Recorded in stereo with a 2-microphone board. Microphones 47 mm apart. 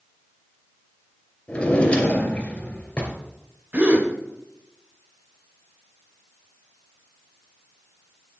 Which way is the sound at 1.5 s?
25° left (ahead or behind).